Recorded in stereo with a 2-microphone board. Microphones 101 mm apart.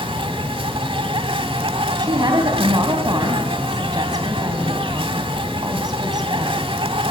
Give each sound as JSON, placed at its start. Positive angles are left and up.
{"t": 0.0, "sound": "an insect", "side_deg": -60, "distance_m": 1.0}
{"t": 2.0, "sound": "a woman speaking", "side_deg": -45, "distance_m": 3.5}